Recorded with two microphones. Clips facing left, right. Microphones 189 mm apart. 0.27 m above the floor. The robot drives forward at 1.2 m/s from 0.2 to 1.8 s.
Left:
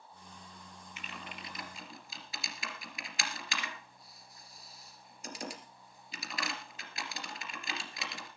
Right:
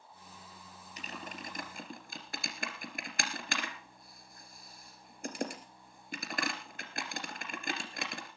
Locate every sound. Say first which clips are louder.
1.0 s typing on a keyboard: right 4 dB; 40° right (ahead or behind), 3 m; by 8.3 s 55° right (ahead or behind), 2.5 m